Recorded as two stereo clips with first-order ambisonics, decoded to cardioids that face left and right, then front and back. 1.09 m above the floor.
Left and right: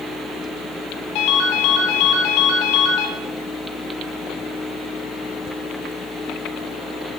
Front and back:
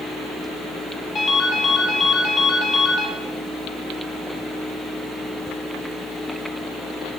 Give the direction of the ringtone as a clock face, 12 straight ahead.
10 o'clock.